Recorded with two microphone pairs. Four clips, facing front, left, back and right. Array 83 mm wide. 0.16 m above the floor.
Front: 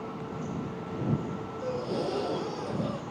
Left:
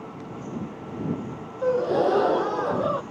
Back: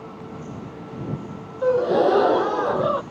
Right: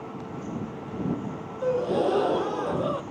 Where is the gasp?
160° left.